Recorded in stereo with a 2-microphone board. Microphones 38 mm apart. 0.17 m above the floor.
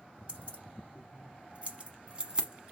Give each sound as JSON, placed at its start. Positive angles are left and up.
{"t": 0.3, "sound": "keys jangling", "side_deg": -35, "distance_m": 1.4}